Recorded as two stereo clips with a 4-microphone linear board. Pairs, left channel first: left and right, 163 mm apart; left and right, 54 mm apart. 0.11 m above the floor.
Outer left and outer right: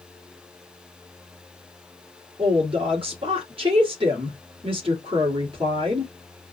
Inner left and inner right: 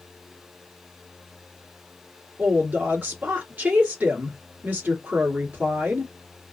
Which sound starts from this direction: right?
A woman speaking, at 2.4 s.